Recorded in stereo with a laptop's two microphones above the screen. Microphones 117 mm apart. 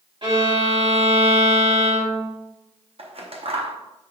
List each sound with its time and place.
0.2 s a violin: 50° right (ahead or behind), 3 m
3.0 s scissors: 55° right (ahead or behind), 0.8 m